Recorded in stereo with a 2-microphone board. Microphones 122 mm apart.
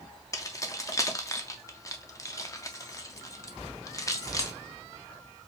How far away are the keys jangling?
About 0.5 m.